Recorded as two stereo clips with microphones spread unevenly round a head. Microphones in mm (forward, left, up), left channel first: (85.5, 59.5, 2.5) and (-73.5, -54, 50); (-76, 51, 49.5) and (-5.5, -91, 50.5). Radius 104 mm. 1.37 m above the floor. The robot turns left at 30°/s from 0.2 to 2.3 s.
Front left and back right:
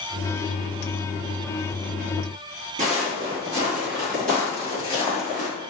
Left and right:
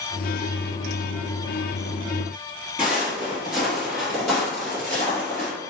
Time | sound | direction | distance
2.8 | footsteps | 145° right | 1.8 m